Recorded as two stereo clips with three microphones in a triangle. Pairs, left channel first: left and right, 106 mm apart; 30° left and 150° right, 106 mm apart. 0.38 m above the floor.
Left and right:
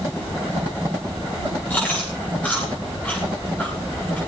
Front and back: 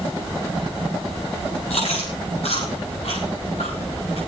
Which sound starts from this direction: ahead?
Chewing, at 1.7 s.